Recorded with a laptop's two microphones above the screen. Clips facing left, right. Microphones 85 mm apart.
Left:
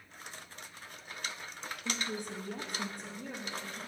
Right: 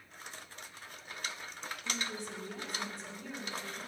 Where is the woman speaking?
50° left (ahead or behind), 1.2 m; by 3.8 s 45° left (ahead or behind), 1.7 m.